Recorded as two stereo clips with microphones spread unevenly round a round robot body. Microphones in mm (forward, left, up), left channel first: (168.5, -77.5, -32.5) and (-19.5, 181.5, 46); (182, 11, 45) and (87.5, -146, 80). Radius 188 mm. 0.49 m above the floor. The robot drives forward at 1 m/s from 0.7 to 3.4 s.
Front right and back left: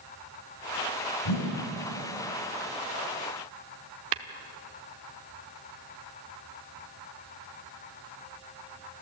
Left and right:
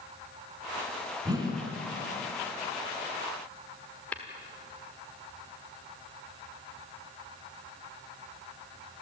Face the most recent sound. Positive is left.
turn(degrees=135)